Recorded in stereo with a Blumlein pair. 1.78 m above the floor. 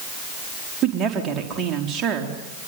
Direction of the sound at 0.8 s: 25° right.